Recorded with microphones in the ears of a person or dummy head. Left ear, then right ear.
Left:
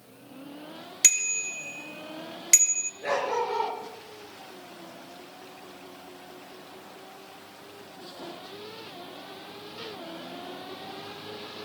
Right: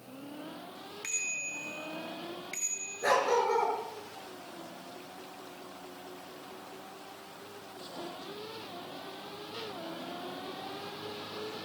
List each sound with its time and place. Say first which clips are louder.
1.0 s a bicycle bell: left 10 dB; 85° left, 4 m
3.0 s a dog barking: right 2 dB; 45° right (ahead or behind), 8 m